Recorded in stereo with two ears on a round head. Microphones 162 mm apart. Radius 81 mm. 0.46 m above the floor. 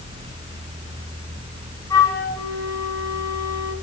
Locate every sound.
1.9 s a flute: 15° left (ahead or behind), 5 m